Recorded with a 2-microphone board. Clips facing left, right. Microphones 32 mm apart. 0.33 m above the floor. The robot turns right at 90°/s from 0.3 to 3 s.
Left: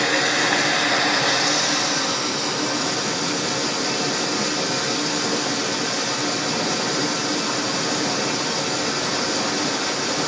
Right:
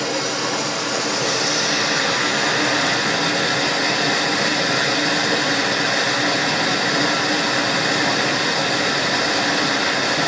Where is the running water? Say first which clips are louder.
Left 3 dB; 60° left, 1.8 m; by 10.3 s 55° right, 1.8 m.